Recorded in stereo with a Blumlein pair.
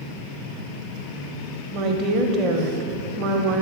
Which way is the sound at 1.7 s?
35° right.